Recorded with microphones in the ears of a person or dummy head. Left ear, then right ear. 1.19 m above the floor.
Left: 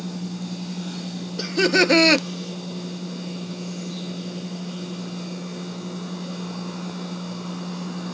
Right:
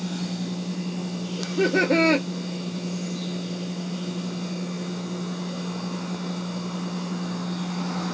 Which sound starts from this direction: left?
Laughter, at 1.4 s.